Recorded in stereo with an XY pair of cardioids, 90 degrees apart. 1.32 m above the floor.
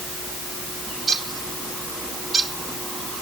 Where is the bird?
50° right, 2.5 m.